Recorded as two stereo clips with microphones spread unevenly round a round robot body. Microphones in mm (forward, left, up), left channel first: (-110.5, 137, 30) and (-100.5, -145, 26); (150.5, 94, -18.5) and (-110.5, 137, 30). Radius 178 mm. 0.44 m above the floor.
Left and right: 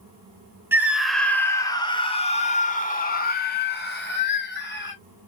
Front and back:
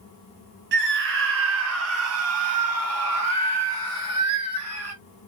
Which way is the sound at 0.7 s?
165° right.